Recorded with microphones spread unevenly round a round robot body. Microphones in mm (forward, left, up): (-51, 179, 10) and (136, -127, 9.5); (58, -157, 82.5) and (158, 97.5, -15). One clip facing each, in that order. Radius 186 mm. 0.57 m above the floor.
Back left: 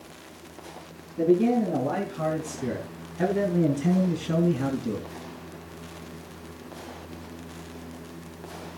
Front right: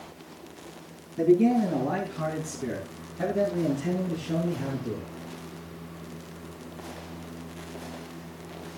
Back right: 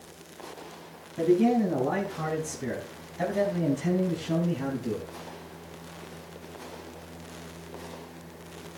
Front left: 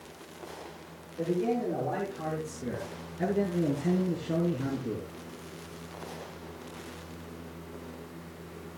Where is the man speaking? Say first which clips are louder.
Front right 1 dB, back right 7 dB; 140° right, 4.5 m; by 5.0 s straight behind, 5 m.